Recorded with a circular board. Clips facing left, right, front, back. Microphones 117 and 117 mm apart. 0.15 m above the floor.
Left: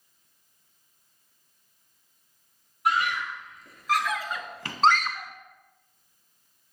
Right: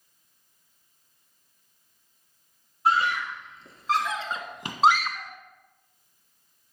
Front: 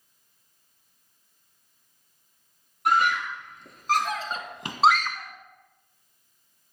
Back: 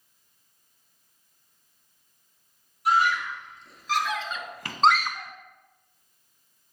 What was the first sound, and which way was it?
A scream, 30° right.